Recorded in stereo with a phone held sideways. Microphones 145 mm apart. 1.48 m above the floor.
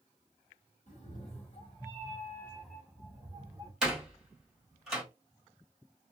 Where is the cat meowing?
50° left (ahead or behind), 1.6 m; by 3.7 s 35° right (ahead or behind), 1.2 m.